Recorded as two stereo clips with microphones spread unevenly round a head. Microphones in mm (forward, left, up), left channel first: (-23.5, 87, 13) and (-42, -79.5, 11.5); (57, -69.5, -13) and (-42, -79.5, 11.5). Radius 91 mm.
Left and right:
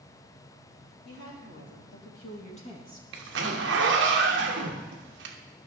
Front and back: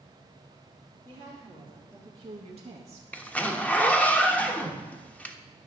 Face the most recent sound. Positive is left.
turn(degrees=-70)